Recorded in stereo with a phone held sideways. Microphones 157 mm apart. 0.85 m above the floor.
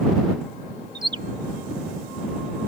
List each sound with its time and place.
0.9 s a bird: 30° right (ahead or behind)